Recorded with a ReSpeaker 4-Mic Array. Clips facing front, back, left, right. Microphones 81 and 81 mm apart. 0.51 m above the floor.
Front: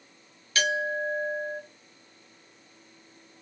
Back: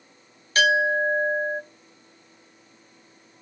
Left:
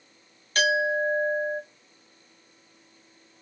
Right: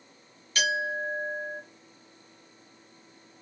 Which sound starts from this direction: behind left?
A clink, at 0.6 s.